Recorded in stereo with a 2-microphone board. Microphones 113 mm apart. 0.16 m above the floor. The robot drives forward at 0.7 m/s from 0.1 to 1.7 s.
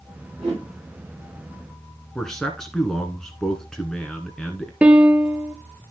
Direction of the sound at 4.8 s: 10° right (ahead or behind).